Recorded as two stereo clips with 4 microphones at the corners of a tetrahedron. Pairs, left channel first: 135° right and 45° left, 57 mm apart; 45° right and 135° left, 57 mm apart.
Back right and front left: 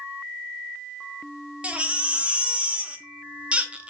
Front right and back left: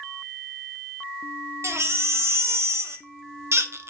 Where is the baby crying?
110° left, 0.6 m.